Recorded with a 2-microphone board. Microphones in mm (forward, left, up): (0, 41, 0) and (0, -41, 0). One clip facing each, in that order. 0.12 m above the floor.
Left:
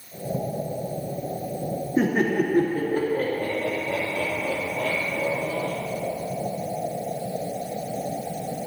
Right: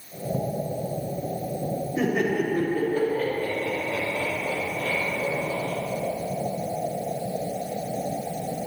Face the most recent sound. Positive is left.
turn(degrees=60)  # may be behind; listen again after turning